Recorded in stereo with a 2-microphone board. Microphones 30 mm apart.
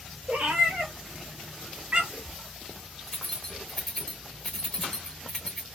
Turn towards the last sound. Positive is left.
turn(degrees=20)  # may be behind; listen again after turning